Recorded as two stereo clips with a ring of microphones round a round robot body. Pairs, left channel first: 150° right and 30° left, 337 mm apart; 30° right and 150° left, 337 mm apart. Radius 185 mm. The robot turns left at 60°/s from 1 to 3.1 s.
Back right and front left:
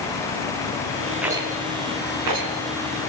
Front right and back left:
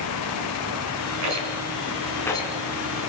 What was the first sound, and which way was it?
A rattle, 120° left.